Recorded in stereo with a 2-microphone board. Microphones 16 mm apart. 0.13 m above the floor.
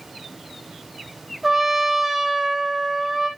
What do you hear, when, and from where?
1.4 s a trumpet: 15° right (ahead or behind), 2.5 m